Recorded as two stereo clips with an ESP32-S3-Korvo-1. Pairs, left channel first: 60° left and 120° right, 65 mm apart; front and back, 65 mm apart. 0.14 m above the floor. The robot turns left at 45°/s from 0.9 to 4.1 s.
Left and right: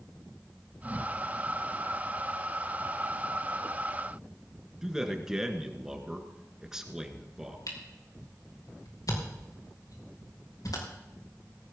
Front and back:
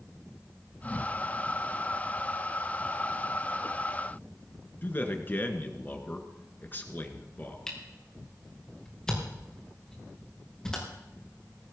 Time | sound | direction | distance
4.8 | a man speaking | 40° right | 1.8 m
7.7 | a camera shutter | 85° left | 5 m